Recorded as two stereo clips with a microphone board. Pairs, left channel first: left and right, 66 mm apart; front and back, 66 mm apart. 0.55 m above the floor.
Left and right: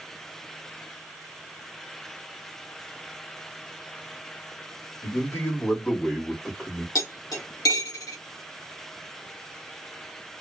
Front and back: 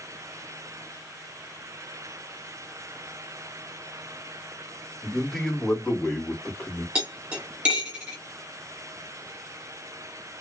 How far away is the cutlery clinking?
About 1.2 m.